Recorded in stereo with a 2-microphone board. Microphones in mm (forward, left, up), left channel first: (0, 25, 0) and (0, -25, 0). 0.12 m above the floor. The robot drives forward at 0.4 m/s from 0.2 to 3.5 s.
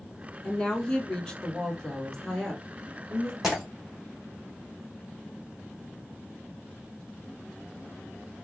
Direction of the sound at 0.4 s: 15° left (ahead or behind).